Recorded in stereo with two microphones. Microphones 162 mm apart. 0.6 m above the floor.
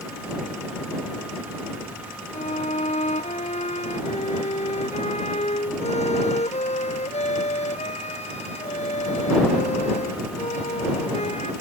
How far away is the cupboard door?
No cupboard door in this recording.